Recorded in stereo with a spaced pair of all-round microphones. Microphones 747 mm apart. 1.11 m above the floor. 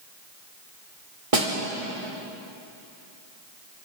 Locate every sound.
1.3 s a snare drum: 45° right (ahead or behind), 4 m